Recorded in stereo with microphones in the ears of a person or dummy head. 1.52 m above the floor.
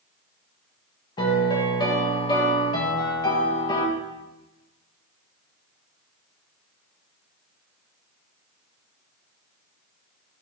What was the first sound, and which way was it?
A piano, 25° left (ahead or behind).